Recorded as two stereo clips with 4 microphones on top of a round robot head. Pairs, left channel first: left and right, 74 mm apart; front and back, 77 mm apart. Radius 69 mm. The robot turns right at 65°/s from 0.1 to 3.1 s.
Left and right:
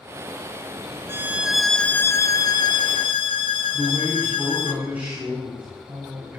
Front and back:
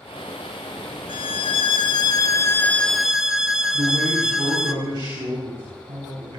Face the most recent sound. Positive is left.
turn(degrees=-160)